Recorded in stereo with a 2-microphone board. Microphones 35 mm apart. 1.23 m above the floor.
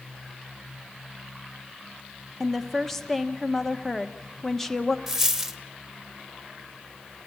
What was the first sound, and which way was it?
A woman speaking, 5° left (ahead or behind).